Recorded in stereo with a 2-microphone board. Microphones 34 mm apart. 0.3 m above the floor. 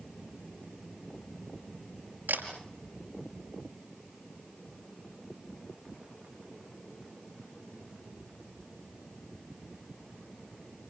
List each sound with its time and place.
2.3 s a camera shutter: 70° right (ahead or behind), 5 m